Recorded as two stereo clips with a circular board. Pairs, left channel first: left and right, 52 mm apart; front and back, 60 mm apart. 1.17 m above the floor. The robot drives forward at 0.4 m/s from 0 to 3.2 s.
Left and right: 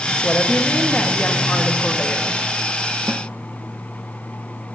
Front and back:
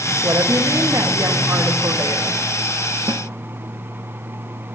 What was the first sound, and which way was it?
A woman speaking, 145° left.